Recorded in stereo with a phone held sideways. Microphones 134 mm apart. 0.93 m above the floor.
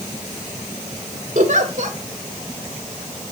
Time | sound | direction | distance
1.4 | a giggle | 70° right (ahead or behind) | 2 m